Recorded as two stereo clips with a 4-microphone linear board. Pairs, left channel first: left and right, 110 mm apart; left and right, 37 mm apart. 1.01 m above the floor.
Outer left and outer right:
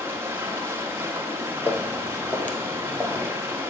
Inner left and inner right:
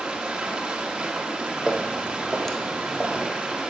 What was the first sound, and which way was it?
Running water, 20° right (ahead or behind).